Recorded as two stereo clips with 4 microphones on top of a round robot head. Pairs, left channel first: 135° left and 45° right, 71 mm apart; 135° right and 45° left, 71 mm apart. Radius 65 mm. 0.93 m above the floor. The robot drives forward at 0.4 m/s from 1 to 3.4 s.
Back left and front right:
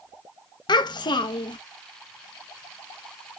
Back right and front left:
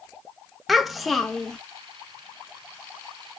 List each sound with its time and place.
0.7 s a child speaking: 130° left, 0.8 m; by 1.6 s 145° left, 1.0 m